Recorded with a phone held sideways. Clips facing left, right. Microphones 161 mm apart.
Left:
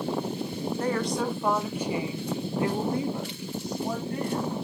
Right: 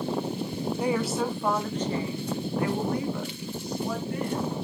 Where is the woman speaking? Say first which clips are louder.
Right 1 dB; 10° right (ahead or behind), 1.3 m; by 4.5 s 40° left (ahead or behind), 3 m.